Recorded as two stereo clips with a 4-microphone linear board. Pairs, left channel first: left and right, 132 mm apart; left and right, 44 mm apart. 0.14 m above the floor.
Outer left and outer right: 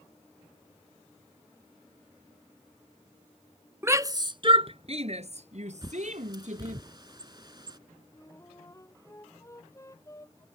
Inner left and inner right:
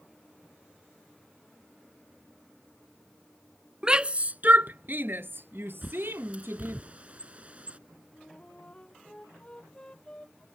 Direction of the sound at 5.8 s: 35° right (ahead or behind).